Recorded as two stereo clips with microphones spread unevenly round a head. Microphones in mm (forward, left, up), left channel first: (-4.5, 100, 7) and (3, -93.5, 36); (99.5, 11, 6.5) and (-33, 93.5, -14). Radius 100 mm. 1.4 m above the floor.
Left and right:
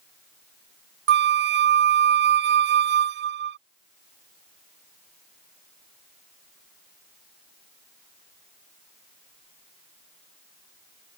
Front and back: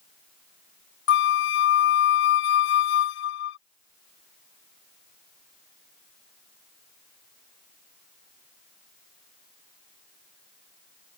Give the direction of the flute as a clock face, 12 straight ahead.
2 o'clock.